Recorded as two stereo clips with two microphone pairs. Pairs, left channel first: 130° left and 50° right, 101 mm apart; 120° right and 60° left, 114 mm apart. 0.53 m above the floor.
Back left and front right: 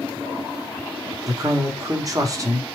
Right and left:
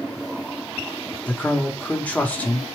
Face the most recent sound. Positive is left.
turn(degrees=-50)